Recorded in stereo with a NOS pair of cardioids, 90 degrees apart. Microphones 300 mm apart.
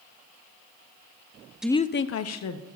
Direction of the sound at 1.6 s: 5° right.